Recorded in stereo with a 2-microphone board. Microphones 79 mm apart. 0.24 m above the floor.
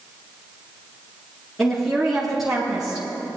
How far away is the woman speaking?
About 3.5 m.